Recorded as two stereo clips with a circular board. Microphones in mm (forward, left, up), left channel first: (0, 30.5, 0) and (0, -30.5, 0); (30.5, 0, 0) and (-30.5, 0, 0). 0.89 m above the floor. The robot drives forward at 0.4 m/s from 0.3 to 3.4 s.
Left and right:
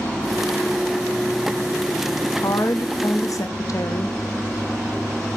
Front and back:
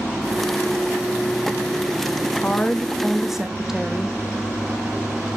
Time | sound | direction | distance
2.4 | a woman speaking | 65° left | 0.8 m